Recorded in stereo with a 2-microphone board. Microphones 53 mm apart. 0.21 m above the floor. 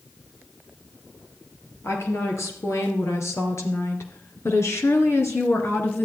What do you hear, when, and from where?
1.8 s a woman speaking: 65° left (ahead or behind), 3.5 m; by 6.1 s 50° left (ahead or behind), 2.5 m